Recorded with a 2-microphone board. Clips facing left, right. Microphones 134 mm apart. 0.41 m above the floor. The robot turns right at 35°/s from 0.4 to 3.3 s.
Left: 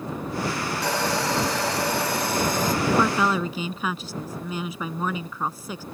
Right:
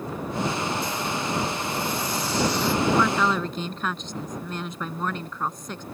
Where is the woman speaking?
20° left (ahead or behind); by 5.8 s 5° left (ahead or behind).